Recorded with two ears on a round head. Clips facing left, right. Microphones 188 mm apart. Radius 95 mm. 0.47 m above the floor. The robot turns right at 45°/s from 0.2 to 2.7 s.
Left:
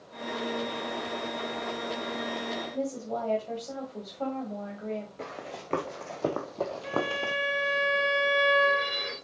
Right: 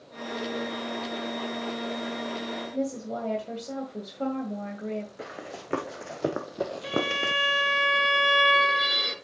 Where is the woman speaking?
25° right (ahead or behind), 2 m.